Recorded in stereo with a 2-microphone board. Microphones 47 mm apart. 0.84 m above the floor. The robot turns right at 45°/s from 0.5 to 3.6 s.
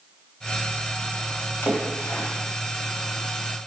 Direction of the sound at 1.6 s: 60° left (ahead or behind).